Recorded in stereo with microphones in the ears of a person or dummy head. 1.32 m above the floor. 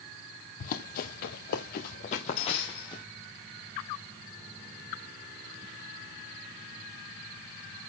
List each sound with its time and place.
0.6 s running footsteps: 45° left (ahead or behind), 1.9 m; by 3.0 s 25° left (ahead or behind), 2.5 m